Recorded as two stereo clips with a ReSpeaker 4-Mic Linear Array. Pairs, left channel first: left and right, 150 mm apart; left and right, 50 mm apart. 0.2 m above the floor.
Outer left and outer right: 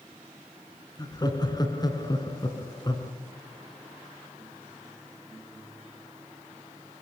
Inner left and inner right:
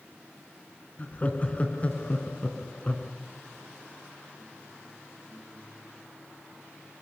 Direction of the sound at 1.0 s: 30° left (ahead or behind).